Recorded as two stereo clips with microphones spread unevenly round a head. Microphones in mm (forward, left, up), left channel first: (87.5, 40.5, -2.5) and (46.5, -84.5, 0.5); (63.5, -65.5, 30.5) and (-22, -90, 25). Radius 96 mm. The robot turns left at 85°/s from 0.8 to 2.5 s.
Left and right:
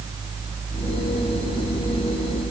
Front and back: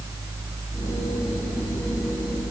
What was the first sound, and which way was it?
Only background noise.